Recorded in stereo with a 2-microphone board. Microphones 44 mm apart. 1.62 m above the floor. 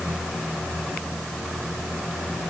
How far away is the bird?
No bird in this recording.